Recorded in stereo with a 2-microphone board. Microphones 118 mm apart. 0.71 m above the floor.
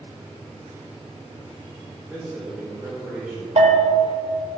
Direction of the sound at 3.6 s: 80° right.